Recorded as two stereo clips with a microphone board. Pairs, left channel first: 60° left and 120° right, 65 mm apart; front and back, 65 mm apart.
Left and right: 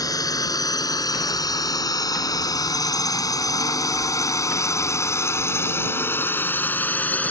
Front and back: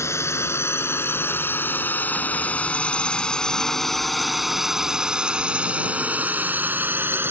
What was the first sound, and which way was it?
A drone, 45° left.